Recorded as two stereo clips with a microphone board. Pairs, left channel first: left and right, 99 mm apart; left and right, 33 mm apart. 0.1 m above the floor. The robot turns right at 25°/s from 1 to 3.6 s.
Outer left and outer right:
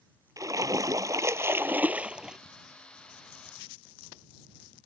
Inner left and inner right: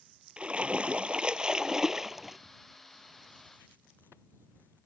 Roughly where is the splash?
Ahead right.